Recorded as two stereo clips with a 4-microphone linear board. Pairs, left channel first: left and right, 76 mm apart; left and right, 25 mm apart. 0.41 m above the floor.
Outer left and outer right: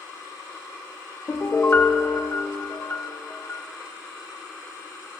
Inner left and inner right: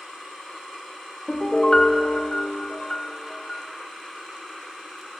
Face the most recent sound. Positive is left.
turn(degrees=35)  # may be behind; listen again after turning